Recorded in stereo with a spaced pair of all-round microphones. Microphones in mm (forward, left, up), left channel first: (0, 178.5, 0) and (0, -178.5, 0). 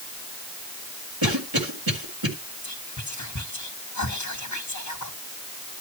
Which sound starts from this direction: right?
A cough, at 1.2 s.